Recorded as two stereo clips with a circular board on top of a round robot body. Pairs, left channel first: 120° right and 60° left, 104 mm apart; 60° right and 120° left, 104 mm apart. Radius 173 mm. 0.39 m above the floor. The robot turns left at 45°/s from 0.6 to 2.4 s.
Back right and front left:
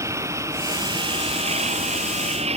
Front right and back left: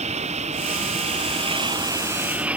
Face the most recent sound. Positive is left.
turn(degrees=40)